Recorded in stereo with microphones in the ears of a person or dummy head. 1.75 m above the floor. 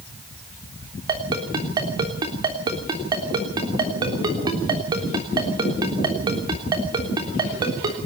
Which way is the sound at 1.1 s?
30° right (ahead or behind).